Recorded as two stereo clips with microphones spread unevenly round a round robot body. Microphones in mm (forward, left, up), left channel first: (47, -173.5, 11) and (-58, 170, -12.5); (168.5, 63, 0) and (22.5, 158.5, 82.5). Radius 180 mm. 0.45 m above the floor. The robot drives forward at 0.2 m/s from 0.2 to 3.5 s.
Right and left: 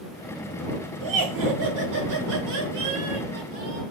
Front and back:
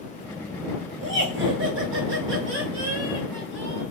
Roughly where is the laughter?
Behind left.